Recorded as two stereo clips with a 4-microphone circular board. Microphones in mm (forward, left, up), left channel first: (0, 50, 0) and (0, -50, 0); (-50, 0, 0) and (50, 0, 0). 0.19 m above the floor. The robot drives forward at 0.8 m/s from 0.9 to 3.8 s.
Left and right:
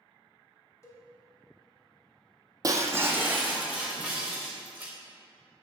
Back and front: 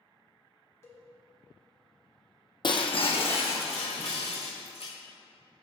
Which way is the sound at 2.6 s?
140° right.